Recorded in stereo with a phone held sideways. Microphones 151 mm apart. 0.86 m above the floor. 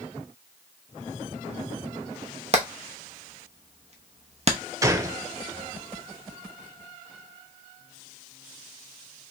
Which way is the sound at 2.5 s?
45° right (ahead or behind).